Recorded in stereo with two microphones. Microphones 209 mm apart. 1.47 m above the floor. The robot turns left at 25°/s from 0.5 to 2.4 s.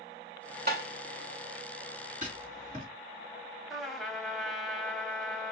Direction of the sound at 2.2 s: 35° right (ahead or behind).